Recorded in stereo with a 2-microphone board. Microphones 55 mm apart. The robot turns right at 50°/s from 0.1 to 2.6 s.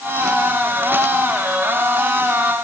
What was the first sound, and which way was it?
Only background noise.